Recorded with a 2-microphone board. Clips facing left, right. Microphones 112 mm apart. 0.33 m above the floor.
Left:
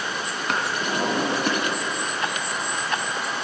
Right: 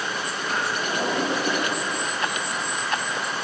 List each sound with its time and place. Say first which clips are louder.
0.5 s a drawer: left 1 dB; 75° left (ahead or behind), 2.0 m